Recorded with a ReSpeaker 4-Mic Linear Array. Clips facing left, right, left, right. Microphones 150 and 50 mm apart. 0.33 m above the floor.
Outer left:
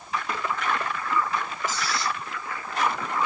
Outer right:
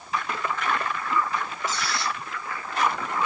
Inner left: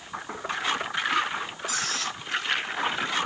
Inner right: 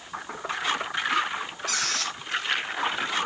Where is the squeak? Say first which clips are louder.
Outer left 1 dB, inner right 1 dB; 75° right (ahead or behind), 2 m.